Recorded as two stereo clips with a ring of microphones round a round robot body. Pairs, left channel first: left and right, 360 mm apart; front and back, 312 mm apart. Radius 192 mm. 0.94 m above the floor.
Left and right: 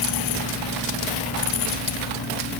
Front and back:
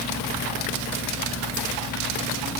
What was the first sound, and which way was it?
Only background noise.